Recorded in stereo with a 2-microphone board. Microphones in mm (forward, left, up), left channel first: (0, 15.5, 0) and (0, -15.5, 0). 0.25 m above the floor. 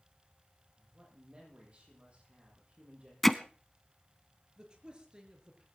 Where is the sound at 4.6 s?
30° right (ahead or behind), 4.5 m.